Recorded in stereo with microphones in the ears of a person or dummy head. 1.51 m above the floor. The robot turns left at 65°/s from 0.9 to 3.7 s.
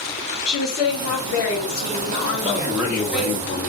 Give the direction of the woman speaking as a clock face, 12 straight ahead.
7 o'clock.